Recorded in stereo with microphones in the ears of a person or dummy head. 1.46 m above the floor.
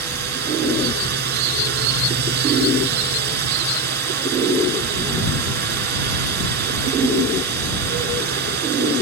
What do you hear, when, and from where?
0.0 s a drone: 55° right (ahead or behind)